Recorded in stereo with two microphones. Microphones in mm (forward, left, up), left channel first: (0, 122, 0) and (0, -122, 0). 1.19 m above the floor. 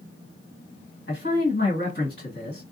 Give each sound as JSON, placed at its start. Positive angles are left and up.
{"t": 1.1, "sound": "a man speaking", "side_deg": 55, "distance_m": 1.7}